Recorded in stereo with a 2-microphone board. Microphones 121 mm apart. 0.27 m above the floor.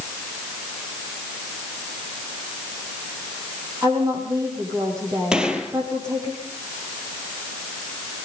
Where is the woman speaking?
30° right (ahead or behind), 9 m.